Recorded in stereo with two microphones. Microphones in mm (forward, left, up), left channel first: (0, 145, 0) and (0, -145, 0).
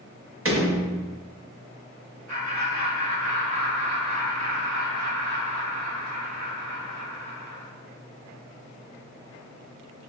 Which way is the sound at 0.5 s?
50° right (ahead or behind).